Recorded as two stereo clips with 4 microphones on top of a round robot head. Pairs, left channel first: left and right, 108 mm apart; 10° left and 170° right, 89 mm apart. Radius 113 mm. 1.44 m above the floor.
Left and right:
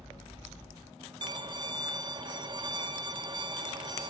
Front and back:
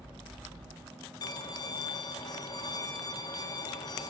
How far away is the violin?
About 2 m.